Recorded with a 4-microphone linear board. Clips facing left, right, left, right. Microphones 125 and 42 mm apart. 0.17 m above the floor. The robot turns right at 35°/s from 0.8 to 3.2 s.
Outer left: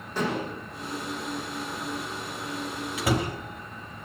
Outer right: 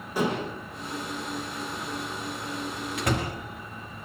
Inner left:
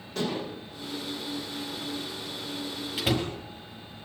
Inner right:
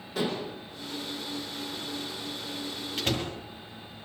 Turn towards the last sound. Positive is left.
turn(degrees=10)  # may be behind; listen again after turning